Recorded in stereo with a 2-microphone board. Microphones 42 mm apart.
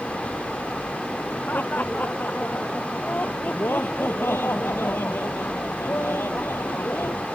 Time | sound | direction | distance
1.5 | laughter | 40° left (ahead or behind) | ?
3.5 | laughter | 65° left (ahead or behind) | ?